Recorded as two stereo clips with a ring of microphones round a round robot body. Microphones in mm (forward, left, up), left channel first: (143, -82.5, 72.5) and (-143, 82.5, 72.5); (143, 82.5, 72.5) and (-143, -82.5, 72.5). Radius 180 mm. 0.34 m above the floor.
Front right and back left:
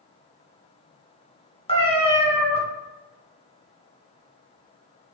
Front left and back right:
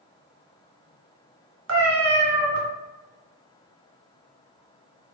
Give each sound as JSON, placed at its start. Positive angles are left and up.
{"t": 1.7, "sound": "a cat meowing", "azimuth_deg": -105, "distance_m": 1.1}